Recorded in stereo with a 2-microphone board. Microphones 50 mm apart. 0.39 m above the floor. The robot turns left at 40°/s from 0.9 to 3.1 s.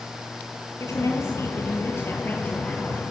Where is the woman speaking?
95° left, 8 m; by 3.0 s 15° left, 8 m.